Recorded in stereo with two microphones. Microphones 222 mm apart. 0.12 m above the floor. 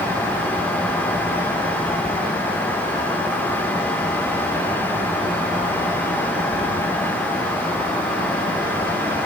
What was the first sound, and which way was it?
Only background noise.